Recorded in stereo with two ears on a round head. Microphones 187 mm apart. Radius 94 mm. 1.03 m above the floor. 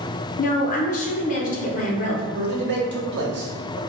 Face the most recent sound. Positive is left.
turn(degrees=-50)  # may be behind; listen again after turning